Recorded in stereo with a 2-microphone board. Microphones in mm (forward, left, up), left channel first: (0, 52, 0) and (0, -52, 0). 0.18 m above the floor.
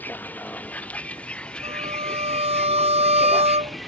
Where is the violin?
85° right.